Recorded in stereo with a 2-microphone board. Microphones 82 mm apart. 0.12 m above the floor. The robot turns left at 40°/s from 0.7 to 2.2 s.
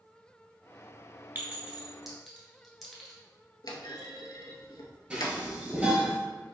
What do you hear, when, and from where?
1.4 s a clink: 25° right (ahead or behind), 1.0 m; by 3.1 s centre (ahead or behind), 1.0 m
3.6 s a clunk: 55° left (ahead or behind), 0.7 m
5.1 s dishes clattering: 20° right (ahead or behind), 1.2 m